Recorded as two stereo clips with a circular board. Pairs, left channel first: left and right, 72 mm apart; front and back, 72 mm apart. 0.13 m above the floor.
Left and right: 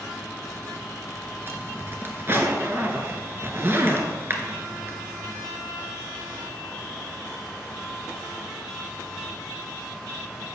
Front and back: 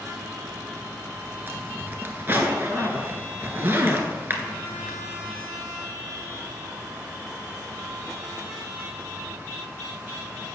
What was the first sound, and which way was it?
A zipper, 130° right.